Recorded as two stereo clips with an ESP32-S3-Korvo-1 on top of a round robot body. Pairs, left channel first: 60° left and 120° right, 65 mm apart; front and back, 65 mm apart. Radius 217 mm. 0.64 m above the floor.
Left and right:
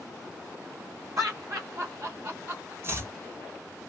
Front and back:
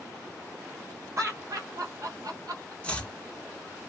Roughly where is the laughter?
Behind right.